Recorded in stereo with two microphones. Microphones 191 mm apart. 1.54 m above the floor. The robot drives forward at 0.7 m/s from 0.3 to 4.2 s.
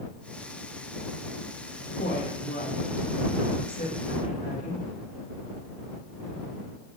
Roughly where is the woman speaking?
Left.